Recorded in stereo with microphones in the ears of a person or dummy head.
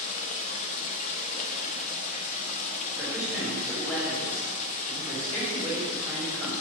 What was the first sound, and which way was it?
Running water, 45° left (ahead or behind).